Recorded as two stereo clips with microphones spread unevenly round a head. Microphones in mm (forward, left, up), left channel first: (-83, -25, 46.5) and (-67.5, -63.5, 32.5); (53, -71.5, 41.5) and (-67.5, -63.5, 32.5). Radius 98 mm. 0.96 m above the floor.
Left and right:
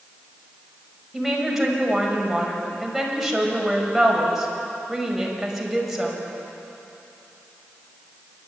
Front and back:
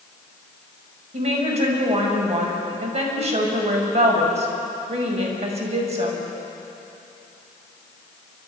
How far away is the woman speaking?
About 6 m.